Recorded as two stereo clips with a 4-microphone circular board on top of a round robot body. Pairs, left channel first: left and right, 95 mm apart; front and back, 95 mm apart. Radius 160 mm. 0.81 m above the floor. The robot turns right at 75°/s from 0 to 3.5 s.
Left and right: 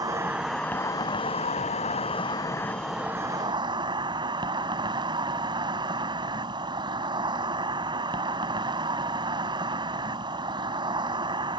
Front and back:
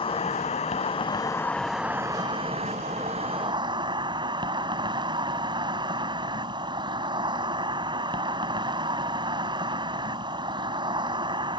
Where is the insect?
35° right; by 11.6 s 135° right.